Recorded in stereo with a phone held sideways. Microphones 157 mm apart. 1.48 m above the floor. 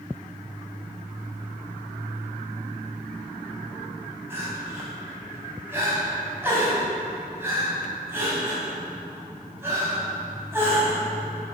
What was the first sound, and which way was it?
Crying, 15° right (ahead or behind).